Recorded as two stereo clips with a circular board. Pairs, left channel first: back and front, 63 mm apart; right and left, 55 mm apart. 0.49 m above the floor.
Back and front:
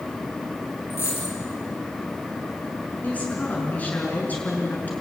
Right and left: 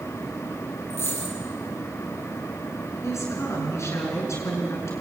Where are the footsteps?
No footsteps in this recording.